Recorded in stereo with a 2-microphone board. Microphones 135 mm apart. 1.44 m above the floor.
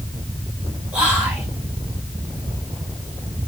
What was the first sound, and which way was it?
Whispering, 10° right (ahead or behind).